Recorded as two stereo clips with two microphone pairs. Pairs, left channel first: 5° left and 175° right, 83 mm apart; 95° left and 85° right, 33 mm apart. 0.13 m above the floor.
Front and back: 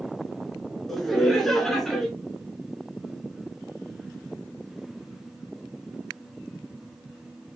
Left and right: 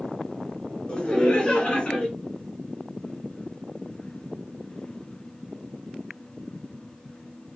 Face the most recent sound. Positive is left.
turn(degrees=85)